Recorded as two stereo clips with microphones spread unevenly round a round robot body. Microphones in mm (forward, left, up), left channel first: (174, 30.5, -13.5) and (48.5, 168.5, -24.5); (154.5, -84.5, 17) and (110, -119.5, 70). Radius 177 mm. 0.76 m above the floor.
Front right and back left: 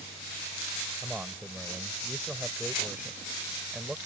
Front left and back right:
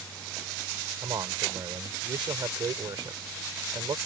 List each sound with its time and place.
1.0 s a man speaking: 140° right